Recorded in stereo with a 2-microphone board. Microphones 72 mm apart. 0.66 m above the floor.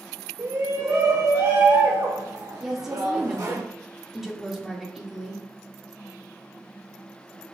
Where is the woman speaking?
5° right (ahead or behind), 2 m.